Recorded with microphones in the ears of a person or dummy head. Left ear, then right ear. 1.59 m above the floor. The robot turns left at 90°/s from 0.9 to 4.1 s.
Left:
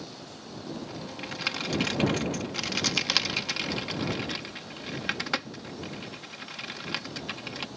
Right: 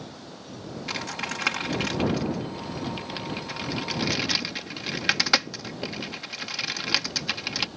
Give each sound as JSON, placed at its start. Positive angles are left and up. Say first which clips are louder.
{"t": 0.9, "sound": "typing on a keyboard", "louder": "right 7 dB", "side_deg": -65}